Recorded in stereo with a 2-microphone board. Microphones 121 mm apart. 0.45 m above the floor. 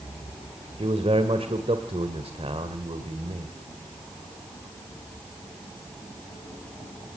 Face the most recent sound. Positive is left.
turn(degrees=-55)  # may be behind; listen again after turning